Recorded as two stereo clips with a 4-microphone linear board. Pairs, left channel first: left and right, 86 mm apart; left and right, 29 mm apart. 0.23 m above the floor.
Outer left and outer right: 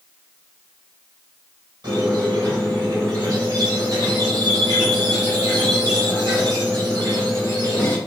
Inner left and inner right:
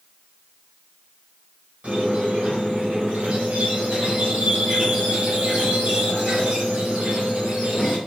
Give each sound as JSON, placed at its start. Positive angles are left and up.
{"t": 1.8, "sound": "a squeak", "side_deg": -50, "distance_m": 1.7}